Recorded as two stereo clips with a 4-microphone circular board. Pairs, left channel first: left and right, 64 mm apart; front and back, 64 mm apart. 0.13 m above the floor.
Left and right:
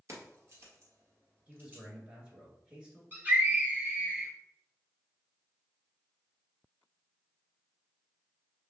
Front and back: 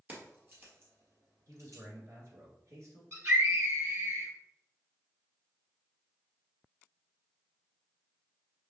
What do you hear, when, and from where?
0.1 s keys jangling: 125° right, 1.6 m; by 1.8 s 150° right, 2 m
1.5 s a man speaking: 160° right, 1.9 m
3.1 s a scream: 140° right, 2 m